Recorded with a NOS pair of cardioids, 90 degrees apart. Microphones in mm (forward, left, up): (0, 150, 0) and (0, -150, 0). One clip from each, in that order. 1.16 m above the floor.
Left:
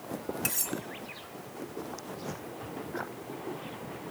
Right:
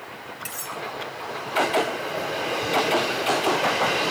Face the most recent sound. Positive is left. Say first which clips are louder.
# right 1 dB
turn(degrees=60)